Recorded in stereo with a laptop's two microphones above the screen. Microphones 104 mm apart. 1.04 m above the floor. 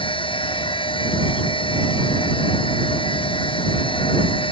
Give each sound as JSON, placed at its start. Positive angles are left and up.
{"t": 0.0, "sound": "a machine running", "side_deg": 55}